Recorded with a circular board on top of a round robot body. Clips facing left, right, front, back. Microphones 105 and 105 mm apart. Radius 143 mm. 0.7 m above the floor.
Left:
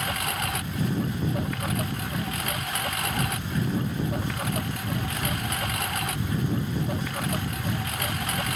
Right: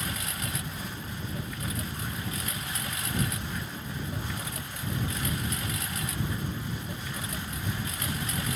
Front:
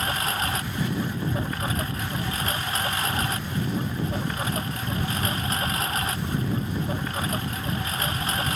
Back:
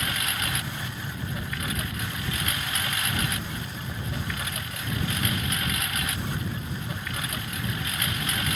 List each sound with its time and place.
0.0 s a lawn mower: 55° left